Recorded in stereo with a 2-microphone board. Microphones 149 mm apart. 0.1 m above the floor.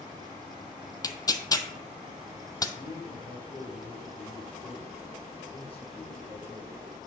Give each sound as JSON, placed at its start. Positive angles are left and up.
{"t": 1.0, "sound": "tearing paper", "side_deg": 25, "distance_m": 0.5}
{"t": 2.8, "sound": "a man speaking", "side_deg": 40, "distance_m": 4.5}